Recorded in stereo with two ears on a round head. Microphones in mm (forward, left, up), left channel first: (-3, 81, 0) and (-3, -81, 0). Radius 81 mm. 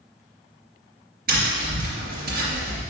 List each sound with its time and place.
1.3 s tapping: 55° right (ahead or behind), 3 m